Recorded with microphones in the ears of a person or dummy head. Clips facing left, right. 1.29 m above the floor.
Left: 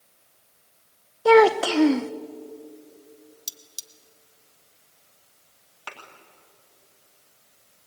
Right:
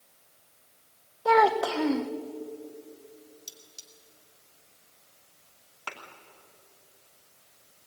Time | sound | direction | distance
1.2 | a child speaking | 30° left (ahead or behind) | 0.6 m
3.5 | cutlery clinking | 70° left (ahead or behind) | 1.3 m
5.9 | a thud | centre (ahead or behind) | 2.5 m